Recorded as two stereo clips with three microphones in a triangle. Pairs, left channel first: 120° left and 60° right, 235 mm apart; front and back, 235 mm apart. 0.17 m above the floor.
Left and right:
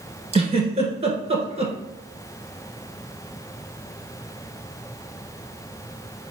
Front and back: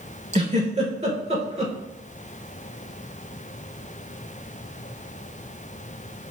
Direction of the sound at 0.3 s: 125° right.